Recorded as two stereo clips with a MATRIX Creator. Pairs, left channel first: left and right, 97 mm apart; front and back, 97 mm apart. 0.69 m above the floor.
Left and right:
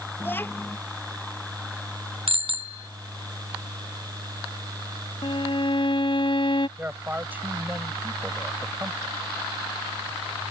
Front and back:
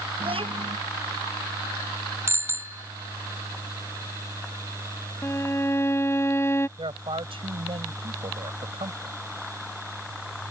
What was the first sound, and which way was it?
A child speaking, 160° left.